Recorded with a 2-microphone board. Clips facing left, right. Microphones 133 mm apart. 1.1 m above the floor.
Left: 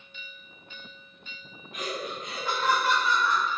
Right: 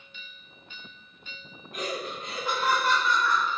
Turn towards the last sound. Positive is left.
turn(degrees=25)  # may be behind; listen again after turning